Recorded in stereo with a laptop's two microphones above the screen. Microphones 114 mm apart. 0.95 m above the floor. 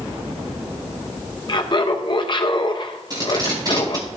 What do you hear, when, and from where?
1.5 s laughter: 45° left (ahead or behind), 0.6 m
3.1 s tape being pulled: 35° right (ahead or behind), 4 m